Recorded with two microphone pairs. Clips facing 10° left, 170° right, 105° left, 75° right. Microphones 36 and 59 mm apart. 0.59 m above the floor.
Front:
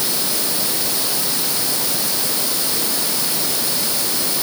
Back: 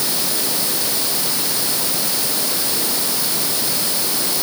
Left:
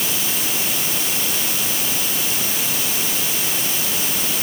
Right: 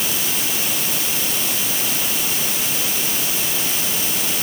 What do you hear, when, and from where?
Only background noise.